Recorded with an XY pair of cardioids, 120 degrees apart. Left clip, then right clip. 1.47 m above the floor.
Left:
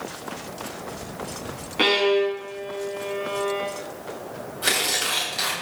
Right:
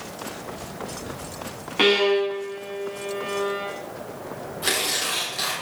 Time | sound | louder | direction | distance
1.8 | a violin | right 1 dB | 10° right | 6 m
4.6 | tearing paper | left 2 dB | 10° left | 8 m